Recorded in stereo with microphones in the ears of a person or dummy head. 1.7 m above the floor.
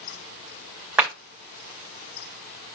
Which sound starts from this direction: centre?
A clap, at 1.0 s.